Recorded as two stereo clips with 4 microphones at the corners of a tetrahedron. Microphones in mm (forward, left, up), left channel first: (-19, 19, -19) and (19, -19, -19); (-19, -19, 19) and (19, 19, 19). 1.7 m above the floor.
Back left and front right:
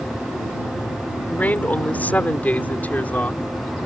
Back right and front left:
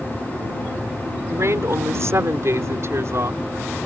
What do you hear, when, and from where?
1.3 s a woman speaking: 75° left